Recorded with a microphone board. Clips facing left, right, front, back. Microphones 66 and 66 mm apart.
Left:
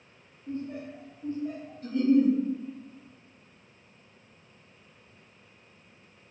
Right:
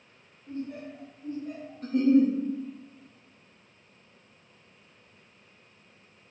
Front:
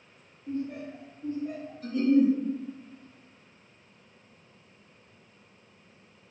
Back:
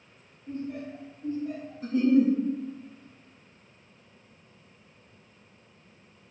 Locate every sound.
0.5 s laughter: 40° left, 1.2 m; by 1.7 s 45° left, 1.9 m
1.8 s a giggle: 115° right, 1.1 m